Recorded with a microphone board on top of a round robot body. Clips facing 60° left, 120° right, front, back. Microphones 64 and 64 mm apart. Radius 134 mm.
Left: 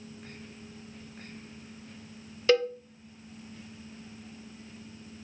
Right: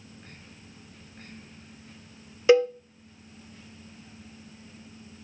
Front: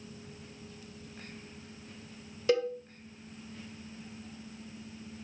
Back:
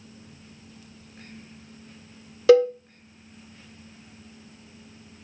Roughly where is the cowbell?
Behind.